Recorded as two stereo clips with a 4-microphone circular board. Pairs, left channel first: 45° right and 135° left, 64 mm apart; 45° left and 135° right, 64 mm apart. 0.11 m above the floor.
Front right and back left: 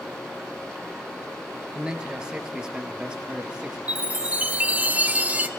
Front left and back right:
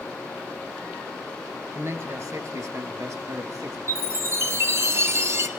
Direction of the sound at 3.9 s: 170° right.